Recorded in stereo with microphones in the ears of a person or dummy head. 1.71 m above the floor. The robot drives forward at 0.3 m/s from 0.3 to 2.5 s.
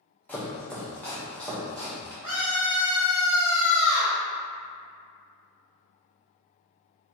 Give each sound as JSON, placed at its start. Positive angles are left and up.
{"t": 0.3, "sound": "chopping", "side_deg": 10, "distance_m": 1.0}
{"t": 2.2, "sound": "a scream", "side_deg": -10, "distance_m": 1.7}